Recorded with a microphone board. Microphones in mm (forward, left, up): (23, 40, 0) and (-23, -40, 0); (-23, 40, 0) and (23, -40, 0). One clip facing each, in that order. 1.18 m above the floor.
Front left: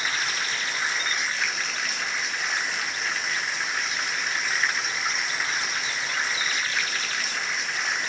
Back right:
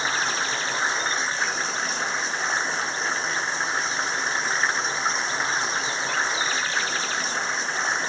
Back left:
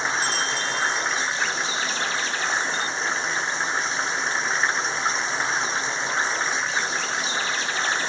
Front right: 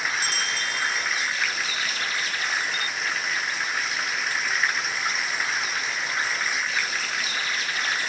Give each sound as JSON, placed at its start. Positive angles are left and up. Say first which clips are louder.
{"t": 0.0, "sound": "running water", "louder": "back right 4 dB, back left 3 dB", "azimuth_deg": 180}